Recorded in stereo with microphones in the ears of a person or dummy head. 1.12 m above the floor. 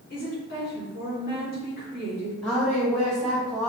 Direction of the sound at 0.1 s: 45° left (ahead or behind).